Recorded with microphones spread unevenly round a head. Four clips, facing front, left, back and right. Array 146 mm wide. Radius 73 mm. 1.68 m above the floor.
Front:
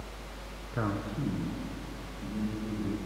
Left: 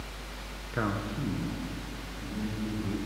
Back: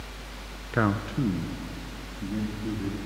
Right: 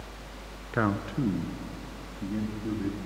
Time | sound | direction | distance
0.7 | a man speaking | 170° right | 0.8 m